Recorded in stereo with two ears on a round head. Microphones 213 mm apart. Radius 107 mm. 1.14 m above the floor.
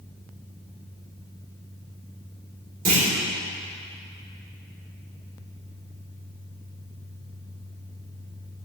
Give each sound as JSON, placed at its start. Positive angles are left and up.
{"t": 2.9, "sound": "a clunk", "side_deg": -35, "distance_m": 3.5}